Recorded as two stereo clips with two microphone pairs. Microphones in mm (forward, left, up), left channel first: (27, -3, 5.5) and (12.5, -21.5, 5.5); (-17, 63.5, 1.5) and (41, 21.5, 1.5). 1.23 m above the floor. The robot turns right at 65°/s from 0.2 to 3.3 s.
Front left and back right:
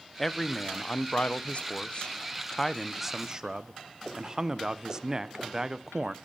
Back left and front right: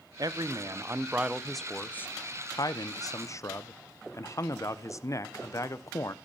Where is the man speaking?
30° right, 0.6 m; by 6.2 s 170° left, 0.6 m.